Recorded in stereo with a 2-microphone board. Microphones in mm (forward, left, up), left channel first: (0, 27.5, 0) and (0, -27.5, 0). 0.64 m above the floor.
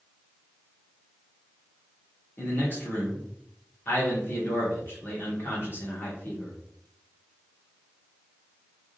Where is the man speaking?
40° left (ahead or behind), 1.5 m.